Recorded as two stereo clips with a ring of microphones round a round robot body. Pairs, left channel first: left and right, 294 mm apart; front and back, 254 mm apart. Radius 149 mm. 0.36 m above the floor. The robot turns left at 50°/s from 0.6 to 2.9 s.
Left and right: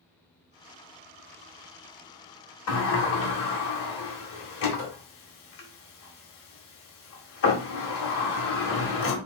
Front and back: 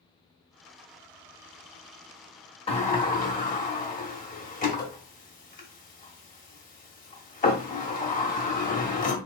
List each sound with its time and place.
2.7 s a sliding door: 65° left, 1.4 m; by 9.2 s 55° left, 1.4 m